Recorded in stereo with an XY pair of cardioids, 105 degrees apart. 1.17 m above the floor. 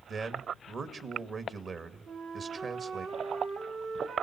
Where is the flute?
70° right, 3.5 m.